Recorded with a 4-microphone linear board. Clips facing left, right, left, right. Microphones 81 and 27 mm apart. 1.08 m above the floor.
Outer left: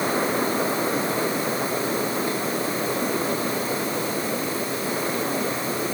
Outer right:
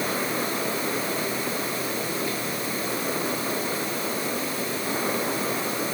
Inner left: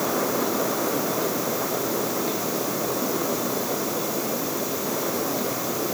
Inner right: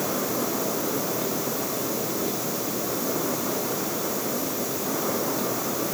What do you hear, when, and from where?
Only background noise.